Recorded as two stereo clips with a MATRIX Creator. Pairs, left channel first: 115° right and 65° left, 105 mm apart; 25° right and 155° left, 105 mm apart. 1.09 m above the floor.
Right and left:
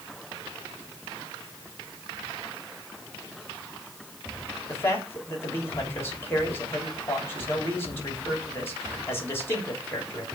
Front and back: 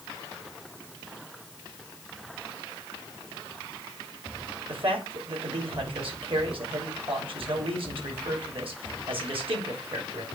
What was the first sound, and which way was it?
A man speaking, straight behind.